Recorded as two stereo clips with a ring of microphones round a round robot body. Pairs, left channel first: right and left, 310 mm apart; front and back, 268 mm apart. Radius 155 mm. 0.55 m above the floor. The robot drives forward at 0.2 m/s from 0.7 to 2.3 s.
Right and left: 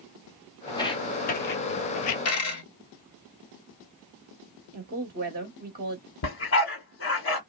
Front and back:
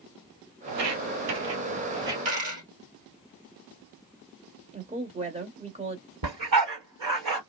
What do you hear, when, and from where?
0.7 s footsteps: 170° right, 1.0 m; by 2.1 s 105° right, 0.7 m
2.2 s a dropped coin: 135° right, 1.5 m
4.7 s a woman speaking: 130° left, 1.2 m
6.2 s a dog barking: 140° right, 1.9 m